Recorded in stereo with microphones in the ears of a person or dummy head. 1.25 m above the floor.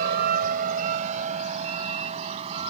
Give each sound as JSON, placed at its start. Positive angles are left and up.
{"t": 0.0, "sound": "a vehicle", "side_deg": -60}